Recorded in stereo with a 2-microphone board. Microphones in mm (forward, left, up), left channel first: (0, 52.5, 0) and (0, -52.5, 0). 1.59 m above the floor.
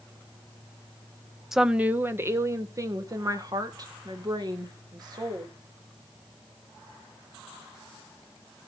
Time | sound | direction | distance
1.5 | a woman speaking | 5° right (ahead or behind) | 0.8 m